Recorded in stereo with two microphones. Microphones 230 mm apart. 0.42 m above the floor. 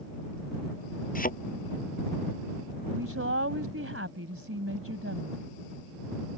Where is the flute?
No flute in this recording.